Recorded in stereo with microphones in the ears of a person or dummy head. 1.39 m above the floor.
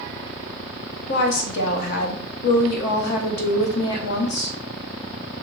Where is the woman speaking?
55° left (ahead or behind), 0.8 m.